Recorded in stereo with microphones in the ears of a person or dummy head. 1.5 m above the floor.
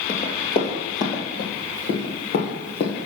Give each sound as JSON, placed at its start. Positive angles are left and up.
{"t": 0.1, "sound": "running footsteps", "side_deg": 45, "distance_m": 2.0}